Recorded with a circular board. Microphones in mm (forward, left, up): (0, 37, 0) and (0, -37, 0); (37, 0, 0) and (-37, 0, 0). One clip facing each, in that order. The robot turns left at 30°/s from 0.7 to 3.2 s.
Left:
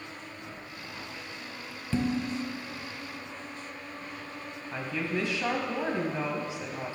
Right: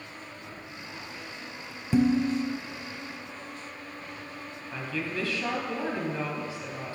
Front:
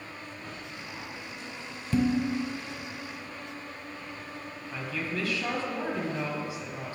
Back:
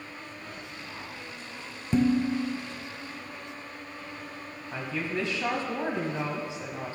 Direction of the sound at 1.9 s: 140° right.